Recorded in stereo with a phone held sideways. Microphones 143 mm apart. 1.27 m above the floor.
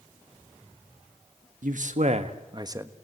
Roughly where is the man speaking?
Right.